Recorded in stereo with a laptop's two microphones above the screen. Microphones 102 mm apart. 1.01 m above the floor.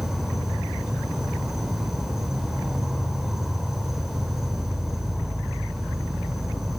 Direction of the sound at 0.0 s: 5° right (ahead or behind).